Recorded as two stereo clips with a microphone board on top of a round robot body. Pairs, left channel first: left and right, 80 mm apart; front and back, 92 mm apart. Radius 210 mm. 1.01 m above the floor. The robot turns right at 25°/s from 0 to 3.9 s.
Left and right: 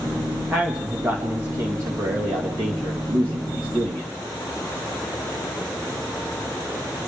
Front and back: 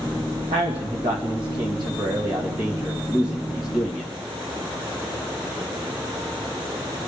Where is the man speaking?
175° right, 1.5 m; by 4.1 s 90° right, 1.5 m.